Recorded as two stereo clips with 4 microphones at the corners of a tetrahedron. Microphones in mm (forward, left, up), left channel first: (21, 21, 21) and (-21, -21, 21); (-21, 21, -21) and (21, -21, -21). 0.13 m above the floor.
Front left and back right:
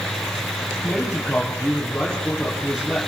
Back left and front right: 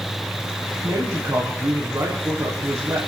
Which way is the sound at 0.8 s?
45° right.